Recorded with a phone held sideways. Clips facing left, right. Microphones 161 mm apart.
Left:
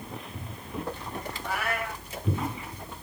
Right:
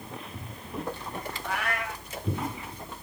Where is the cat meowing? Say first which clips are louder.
Left 1 dB; 5° left (ahead or behind), 3.5 m.